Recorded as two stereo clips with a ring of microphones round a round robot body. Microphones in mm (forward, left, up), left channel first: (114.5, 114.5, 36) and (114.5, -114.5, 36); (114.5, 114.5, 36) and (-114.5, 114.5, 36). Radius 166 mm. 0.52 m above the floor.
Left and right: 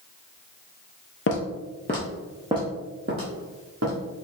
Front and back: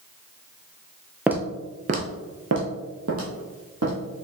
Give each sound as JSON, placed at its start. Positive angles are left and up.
{"t": 1.3, "sound": "footsteps", "azimuth_deg": 95, "distance_m": 0.7}